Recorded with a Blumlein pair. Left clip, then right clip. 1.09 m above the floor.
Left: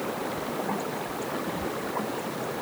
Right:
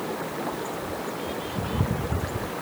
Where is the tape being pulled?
No tape being pulled in this recording.